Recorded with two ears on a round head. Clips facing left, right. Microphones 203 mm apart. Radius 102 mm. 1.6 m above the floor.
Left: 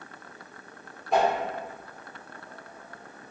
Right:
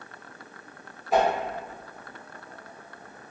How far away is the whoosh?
About 0.9 m.